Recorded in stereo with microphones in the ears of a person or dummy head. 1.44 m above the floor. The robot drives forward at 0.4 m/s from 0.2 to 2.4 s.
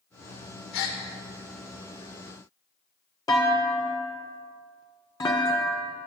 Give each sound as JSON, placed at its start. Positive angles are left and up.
{"t": 0.7, "sound": "a gasp", "side_deg": 60, "distance_m": 2.0}
{"t": 3.3, "sound": "a clunk", "side_deg": 15, "distance_m": 1.3}